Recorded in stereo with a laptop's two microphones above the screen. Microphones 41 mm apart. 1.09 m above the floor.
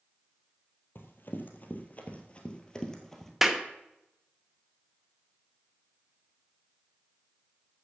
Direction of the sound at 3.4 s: 5° right (ahead or behind).